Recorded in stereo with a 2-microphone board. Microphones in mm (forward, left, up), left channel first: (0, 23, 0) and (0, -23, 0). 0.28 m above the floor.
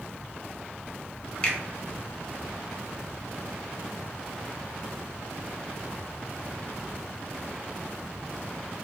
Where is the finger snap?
25° left (ahead or behind), 0.7 m.